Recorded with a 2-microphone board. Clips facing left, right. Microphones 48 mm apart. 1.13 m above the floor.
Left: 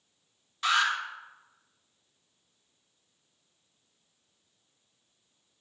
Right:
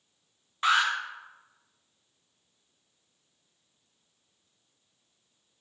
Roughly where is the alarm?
Right.